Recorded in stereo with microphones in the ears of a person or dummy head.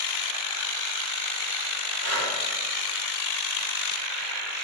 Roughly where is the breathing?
Right.